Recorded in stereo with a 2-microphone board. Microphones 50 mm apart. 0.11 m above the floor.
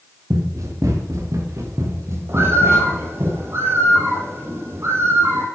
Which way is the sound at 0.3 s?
85° right.